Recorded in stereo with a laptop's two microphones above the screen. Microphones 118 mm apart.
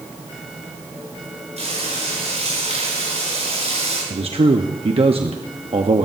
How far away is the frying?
About 10 m.